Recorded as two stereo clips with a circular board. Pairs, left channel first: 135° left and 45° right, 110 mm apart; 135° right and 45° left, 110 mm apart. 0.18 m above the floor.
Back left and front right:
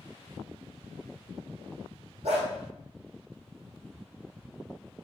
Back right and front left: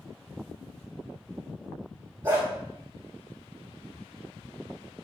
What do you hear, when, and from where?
2.2 s a dog barking: 15° right, 1.6 m